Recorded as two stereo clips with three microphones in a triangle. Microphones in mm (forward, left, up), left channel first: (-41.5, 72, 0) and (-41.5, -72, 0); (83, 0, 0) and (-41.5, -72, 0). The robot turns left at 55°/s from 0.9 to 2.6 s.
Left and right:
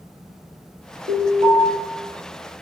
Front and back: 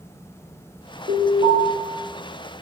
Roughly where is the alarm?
Behind right.